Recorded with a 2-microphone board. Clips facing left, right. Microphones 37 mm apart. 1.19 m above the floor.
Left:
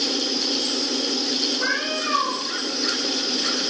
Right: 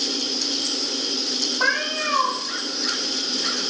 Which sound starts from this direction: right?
A cat meowing, at 1.6 s.